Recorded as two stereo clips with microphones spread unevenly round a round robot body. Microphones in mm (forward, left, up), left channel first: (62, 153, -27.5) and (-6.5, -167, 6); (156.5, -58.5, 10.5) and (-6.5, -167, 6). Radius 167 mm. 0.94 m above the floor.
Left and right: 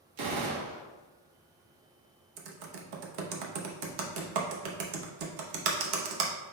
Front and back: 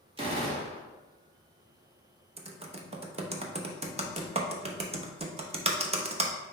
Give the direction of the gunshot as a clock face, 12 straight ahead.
3 o'clock.